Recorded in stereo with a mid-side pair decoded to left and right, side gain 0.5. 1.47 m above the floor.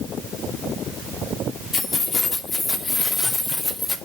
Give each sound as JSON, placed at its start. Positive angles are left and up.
{"t": 1.7, "sound": "keys jangling", "azimuth_deg": 45, "distance_m": 3.0}